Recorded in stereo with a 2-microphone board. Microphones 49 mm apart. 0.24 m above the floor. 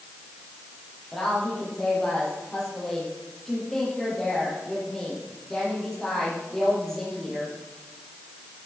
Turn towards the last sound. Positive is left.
turn(degrees=10)  # may be behind; listen again after turning